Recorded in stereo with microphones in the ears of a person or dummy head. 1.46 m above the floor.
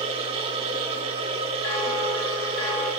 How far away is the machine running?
About 1.9 m.